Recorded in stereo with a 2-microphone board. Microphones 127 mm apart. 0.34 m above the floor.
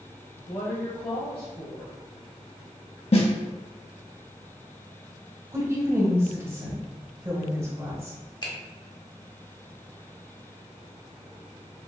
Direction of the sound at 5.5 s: 25° right (ahead or behind).